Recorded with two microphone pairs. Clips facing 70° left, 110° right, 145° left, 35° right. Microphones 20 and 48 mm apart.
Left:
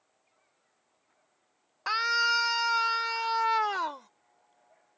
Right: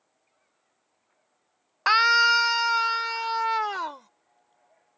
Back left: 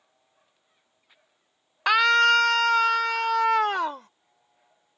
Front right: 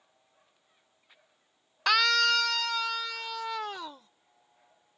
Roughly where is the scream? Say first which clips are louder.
Right 8 dB, back left 6 dB; behind right.